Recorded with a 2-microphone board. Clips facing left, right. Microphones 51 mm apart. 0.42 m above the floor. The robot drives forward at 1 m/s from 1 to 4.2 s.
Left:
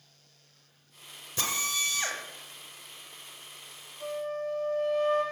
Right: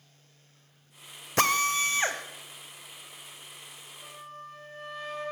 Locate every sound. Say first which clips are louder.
1.4 s a drill: right 8 dB; 65° right (ahead or behind), 0.6 m; by 2.2 s 30° right (ahead or behind), 1.2 m
4.0 s a flute: left 13 dB; 75° left (ahead or behind), 5.5 m